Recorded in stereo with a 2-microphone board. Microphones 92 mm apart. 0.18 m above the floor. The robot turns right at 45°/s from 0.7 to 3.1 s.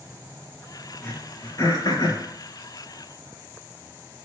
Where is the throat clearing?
20° left (ahead or behind), 3 m; by 2.2 s 60° left (ahead or behind), 3 m.